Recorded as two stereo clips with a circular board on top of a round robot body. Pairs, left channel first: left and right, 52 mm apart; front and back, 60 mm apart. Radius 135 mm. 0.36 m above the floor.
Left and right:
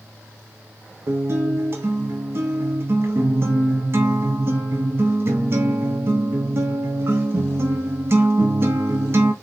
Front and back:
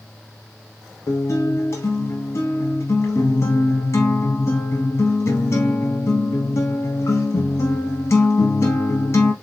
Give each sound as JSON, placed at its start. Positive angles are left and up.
{"t": 1.1, "sound": "a guitar", "azimuth_deg": -45, "distance_m": 0.5}